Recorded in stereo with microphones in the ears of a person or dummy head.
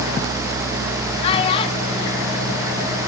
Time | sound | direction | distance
1.2 | a child speaking | 35° left (ahead or behind) | 1.7 m